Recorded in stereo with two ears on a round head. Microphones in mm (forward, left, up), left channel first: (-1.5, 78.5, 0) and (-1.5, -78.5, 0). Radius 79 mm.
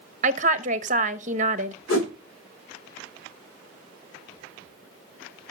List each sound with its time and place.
0.2 s a woman speaking: 40° right (ahead or behind), 0.9 m
1.9 s a whoosh: 85° left, 3 m